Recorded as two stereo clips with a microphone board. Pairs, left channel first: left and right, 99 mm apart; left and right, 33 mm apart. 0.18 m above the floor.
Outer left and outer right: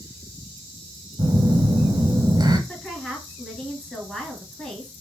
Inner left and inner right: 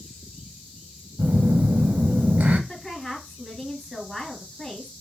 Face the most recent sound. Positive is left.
turn(degrees=5)  # may be behind; listen again after turning